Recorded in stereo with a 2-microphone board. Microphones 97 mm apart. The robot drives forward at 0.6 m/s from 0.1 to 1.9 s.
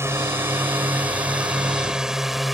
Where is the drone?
25° right (ahead or behind); by 2.5 s centre (ahead or behind).